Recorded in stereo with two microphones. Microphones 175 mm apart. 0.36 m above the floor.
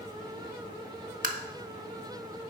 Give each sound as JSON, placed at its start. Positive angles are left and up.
{"t": 1.2, "sound": "tapping", "side_deg": -50, "distance_m": 0.8}